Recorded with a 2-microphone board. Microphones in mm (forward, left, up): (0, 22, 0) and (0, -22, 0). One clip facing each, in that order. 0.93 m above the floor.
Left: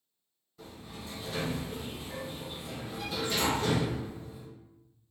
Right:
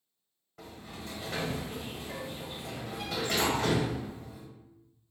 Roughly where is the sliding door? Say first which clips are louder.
Right 1 dB; right.